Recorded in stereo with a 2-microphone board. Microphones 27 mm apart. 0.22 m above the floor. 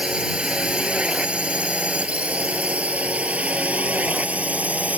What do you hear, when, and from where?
0.0 s a drone: 40° right (ahead or behind); by 5.0 s 65° right (ahead or behind)